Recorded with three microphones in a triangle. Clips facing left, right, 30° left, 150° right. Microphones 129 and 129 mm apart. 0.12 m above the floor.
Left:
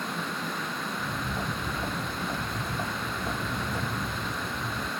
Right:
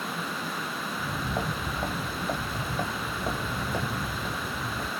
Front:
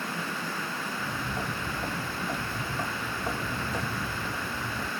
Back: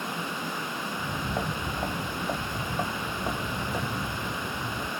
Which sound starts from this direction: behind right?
Footsteps, at 0.9 s.